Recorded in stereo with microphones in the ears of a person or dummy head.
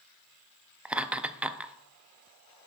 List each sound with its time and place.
0.8 s laughter: 10° right (ahead or behind), 0.5 m